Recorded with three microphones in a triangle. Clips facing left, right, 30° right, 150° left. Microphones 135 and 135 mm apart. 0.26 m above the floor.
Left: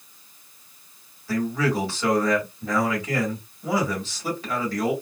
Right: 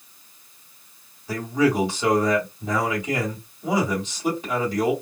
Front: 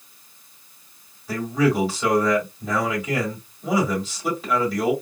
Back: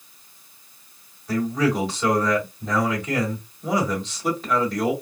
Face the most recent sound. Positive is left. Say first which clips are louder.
# right 3 dB, front 1 dB
turn(degrees=-105)